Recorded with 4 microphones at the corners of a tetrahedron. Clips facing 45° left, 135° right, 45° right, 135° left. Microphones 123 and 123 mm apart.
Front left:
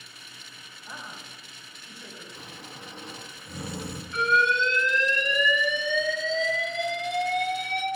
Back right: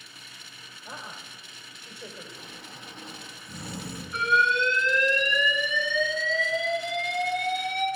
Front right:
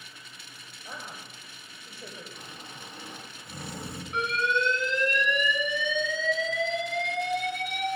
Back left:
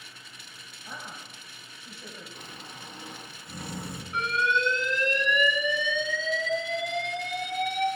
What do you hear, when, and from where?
0.8 s a woman speaking: 80° right, 1.9 m
2.3 s snoring: 20° left, 2.0 m
4.1 s an alarm: 55° right, 5 m